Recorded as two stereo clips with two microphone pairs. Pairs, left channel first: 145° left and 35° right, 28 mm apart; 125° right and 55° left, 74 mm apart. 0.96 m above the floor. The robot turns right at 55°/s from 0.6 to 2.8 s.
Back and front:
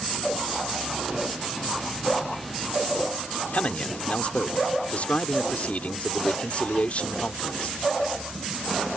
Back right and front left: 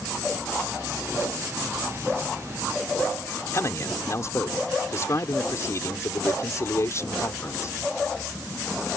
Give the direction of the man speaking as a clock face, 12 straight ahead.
6 o'clock.